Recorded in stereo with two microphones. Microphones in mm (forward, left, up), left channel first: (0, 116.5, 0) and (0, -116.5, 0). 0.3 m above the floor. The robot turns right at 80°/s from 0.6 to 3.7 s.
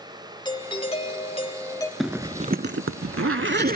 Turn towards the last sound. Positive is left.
turn(degrees=-45)  # may be behind; listen again after turning